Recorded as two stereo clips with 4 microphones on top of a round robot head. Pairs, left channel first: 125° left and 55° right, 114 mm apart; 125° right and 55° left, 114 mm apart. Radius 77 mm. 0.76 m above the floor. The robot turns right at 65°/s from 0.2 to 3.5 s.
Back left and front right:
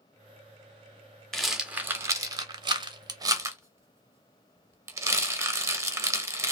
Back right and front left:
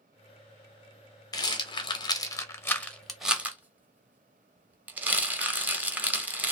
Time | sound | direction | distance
1.3 | a rattle | 150° right | 0.8 m